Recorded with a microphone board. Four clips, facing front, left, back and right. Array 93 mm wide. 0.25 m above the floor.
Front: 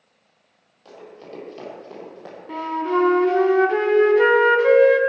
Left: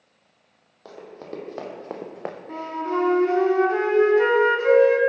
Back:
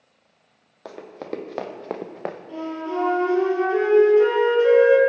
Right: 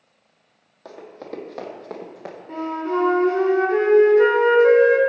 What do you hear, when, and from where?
0.8 s running footsteps: straight behind, 2 m; by 2.4 s 140° left, 0.8 m
2.5 s a flute: straight ahead, 1.3 m